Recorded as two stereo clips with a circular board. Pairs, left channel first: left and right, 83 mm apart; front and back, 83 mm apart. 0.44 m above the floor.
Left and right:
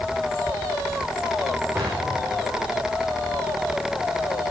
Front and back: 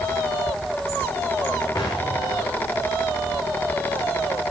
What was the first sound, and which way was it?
An explosion, 40° right.